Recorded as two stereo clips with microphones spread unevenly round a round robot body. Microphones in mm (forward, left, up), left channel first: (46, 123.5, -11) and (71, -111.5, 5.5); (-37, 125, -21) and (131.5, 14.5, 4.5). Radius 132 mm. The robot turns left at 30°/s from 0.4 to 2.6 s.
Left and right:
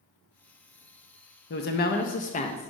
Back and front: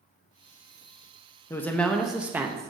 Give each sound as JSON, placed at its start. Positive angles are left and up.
{"t": 1.5, "sound": "a woman speaking", "azimuth_deg": 80, "distance_m": 0.6}